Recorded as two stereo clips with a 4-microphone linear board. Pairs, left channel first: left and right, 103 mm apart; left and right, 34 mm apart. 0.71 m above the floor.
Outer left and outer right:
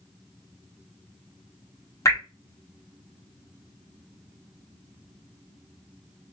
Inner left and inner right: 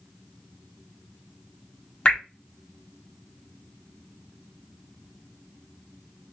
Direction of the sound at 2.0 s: 35° left (ahead or behind).